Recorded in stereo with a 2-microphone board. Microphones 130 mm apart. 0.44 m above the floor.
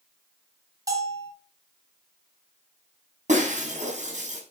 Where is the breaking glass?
65° right (ahead or behind), 5.5 m.